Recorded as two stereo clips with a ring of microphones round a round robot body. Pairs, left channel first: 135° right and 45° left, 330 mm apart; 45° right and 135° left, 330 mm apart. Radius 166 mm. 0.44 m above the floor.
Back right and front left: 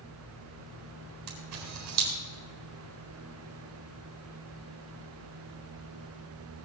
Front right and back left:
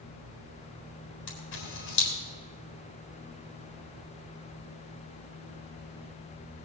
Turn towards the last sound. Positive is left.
turn(degrees=5)